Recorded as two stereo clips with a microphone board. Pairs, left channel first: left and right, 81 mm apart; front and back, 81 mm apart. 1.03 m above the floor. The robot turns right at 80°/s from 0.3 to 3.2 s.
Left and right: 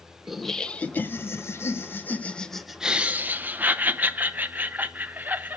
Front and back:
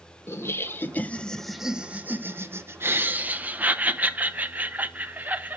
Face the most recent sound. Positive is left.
turn(degrees=-135)